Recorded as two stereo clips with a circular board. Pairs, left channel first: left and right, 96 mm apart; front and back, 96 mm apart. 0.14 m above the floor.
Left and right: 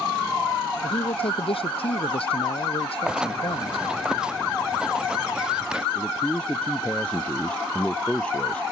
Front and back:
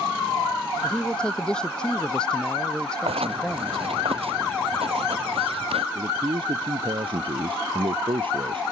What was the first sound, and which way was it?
A man speaking, 80° left.